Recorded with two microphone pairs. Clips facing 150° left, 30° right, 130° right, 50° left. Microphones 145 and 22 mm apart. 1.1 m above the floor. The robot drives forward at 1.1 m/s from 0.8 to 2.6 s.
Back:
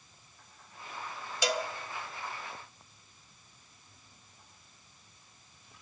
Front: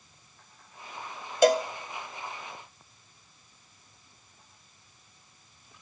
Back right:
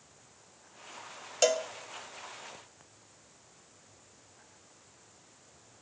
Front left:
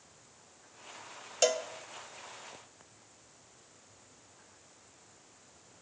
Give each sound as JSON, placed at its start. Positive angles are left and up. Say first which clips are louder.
{"t": 1.4, "sound": "a cowbell", "louder": "front 11 dB, back right 2 dB", "azimuth_deg": -40, "distance_m": 0.6}